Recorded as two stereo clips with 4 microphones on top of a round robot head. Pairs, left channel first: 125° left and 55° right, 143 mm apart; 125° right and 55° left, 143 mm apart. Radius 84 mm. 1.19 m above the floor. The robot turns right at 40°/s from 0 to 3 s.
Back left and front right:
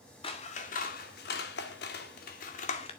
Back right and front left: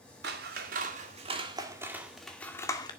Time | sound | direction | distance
0.2 | scissors | 65° left | 2.0 m